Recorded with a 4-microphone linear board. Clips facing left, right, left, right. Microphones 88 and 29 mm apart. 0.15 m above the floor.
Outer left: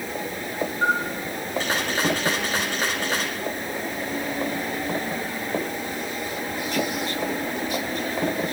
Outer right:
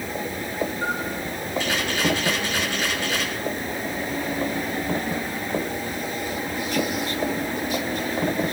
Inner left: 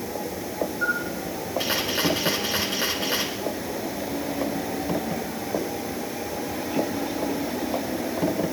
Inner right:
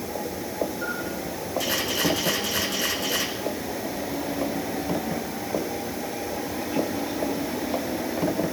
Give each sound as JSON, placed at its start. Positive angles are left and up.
{"t": 0.8, "sound": "a camera shutter", "side_deg": 40, "distance_m": 6.5}